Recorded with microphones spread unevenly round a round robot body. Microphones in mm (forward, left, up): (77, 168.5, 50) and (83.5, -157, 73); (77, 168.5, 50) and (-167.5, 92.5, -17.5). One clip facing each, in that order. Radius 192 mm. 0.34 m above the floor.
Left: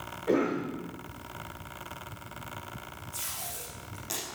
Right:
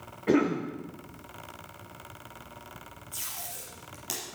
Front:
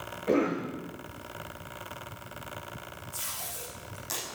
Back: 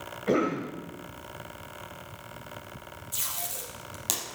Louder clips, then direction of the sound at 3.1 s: Left 2 dB, back 2 dB; 155° right.